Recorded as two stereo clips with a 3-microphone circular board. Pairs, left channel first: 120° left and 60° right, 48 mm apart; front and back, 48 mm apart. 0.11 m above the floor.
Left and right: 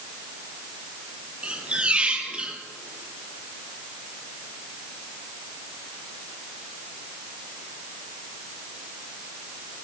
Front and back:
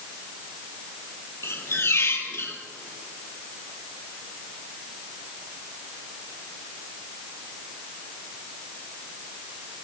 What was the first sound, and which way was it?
A squeak, 5° left.